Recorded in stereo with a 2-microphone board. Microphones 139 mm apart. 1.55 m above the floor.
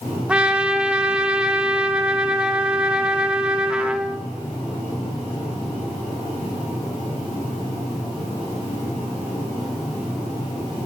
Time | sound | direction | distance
0.3 | a trumpet | 10° right (ahead or behind) | 0.9 m